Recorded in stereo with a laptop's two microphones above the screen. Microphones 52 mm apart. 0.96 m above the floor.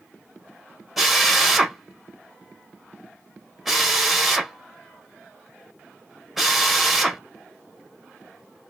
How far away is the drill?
About 1.0 m.